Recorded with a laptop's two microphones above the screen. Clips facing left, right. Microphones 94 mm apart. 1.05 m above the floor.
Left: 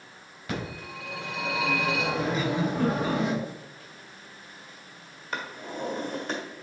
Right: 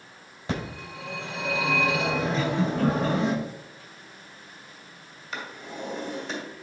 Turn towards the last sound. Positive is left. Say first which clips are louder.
# left 2 dB
turn(degrees=45)  # may be behind; listen again after turning